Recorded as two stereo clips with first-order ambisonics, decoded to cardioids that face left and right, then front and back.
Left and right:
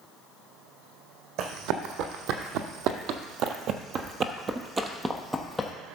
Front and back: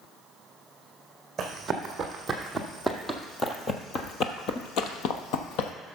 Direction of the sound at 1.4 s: 110° right.